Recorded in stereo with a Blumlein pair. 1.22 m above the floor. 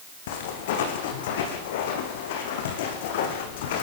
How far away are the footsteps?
About 4.5 m.